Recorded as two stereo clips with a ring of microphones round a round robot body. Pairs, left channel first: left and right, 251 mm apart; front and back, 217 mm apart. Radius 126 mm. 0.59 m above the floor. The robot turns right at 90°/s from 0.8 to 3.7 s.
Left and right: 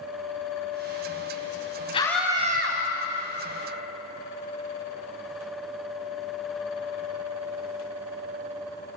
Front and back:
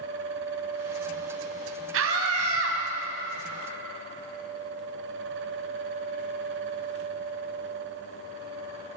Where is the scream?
160° left, 4.5 m; by 2.8 s 125° right, 4.5 m.